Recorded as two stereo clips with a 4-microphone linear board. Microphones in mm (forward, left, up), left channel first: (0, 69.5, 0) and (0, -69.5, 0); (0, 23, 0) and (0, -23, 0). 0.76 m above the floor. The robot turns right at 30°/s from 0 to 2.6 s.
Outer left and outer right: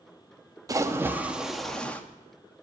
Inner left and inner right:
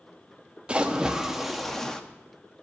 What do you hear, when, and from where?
0.7 s a splash: 25° right, 0.6 m; by 2.0 s 10° left, 0.6 m